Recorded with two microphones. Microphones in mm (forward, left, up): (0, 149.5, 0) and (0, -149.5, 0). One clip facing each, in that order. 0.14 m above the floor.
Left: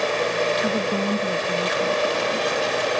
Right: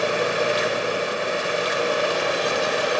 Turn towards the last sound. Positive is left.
turn(degrees=80)